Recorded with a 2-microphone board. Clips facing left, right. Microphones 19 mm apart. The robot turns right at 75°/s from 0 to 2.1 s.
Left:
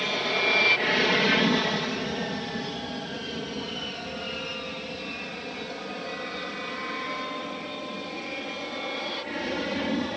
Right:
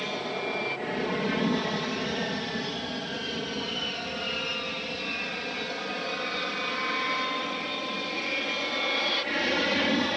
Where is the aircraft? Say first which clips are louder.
Left 6 dB; 15° left (ahead or behind); by 10.2 s 30° right (ahead or behind).